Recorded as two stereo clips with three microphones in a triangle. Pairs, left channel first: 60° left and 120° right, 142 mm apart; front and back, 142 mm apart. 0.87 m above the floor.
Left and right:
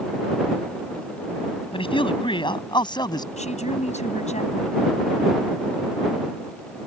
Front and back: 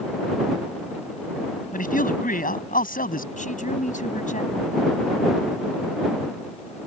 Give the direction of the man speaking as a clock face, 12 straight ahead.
12 o'clock.